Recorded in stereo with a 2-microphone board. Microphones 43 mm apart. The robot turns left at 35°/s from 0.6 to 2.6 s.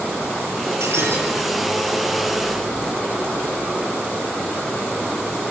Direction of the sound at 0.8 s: 75° right (ahead or behind).